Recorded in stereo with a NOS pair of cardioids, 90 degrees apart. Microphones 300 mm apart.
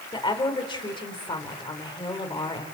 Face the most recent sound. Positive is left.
turn(degrees=15)